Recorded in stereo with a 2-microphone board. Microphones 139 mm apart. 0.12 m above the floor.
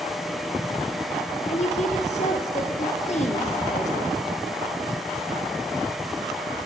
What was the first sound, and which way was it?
A woman speaking, 55° left (ahead or behind).